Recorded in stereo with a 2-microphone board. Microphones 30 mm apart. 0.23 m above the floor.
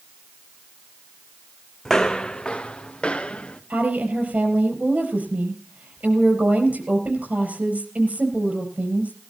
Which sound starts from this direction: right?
A woman speaking, at 3.7 s.